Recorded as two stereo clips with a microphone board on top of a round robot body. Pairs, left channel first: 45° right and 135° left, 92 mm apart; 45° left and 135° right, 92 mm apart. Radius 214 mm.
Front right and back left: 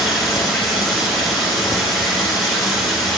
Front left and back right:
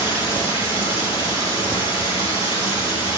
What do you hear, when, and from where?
0.0 s running water: 45° left, 6 m